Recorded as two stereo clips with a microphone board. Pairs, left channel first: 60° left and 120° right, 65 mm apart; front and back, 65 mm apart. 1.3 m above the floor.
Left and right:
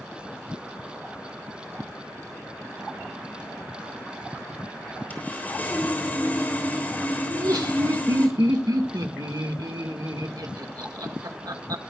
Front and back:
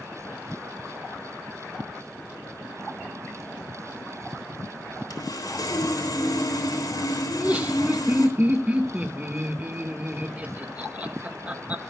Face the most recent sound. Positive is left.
turn(degrees=-110)